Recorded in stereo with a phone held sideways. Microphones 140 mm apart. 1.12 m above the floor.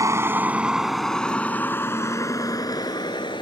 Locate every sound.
0.0 s a vehicle: 25° right (ahead or behind); by 3.4 s 35° left (ahead or behind)